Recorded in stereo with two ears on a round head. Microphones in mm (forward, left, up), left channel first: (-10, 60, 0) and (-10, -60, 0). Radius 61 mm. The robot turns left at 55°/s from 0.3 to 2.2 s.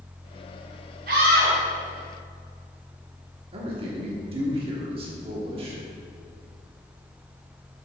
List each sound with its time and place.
1.1 s a scream: 65° right (ahead or behind), 1.7 m
3.5 s a man speaking: 40° right (ahead or behind), 1.5 m